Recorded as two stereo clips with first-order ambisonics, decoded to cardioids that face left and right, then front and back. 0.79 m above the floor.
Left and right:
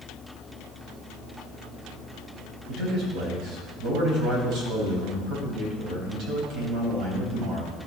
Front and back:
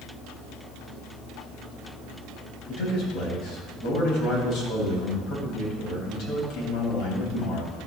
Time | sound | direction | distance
2.7 | a man speaking | 50° right | 4 m